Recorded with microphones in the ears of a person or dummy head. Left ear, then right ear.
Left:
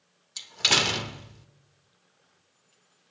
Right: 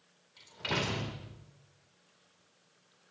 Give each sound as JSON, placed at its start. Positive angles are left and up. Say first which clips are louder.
{"t": 0.4, "sound": "a door slam", "louder": "left 12 dB", "side_deg": 80, "distance_m": 2.0}